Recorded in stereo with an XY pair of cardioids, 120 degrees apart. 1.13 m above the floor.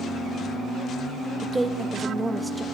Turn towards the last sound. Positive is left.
turn(degrees=-15)